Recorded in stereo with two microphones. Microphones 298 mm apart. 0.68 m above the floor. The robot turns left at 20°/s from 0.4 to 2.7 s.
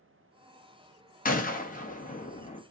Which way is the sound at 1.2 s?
30° left (ahead or behind).